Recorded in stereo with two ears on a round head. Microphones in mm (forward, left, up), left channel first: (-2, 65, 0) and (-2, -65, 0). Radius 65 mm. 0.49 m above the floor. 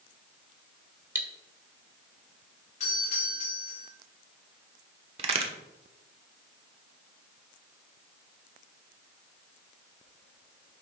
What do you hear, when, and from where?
1.1 s cutlery clinking: 15° right (ahead or behind), 1.1 m
2.8 s a doorbell: 50° left (ahead or behind), 4 m
5.2 s a crack: 40° right (ahead or behind), 1.2 m